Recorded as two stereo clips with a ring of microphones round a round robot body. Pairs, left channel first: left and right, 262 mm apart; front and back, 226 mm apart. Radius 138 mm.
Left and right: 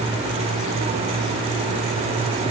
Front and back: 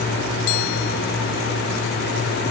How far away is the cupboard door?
I don't hear a cupboard door.